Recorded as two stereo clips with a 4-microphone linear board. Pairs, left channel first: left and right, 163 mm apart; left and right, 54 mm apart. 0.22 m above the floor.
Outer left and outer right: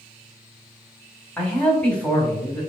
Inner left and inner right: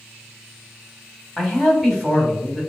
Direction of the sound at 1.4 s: 5° left (ahead or behind).